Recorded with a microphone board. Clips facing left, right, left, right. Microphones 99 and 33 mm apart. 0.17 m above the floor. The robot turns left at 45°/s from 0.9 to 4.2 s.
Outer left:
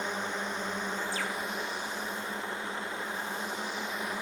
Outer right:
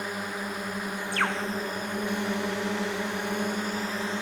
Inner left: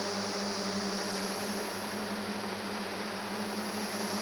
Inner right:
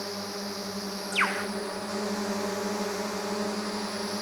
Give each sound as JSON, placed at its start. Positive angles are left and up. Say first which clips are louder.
{"t": 0.0, "sound": "a drone", "louder": "outer right 1 dB, inner left 1 dB", "azimuth_deg": -10}
{"t": 1.1, "sound": "a bird", "louder": "outer right 6 dB, inner right 8 dB", "side_deg": -60}